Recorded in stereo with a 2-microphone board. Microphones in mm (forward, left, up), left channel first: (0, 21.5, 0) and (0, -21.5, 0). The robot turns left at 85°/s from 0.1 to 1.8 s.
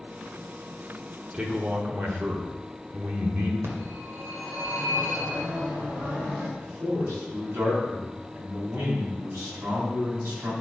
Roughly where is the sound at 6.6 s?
Right.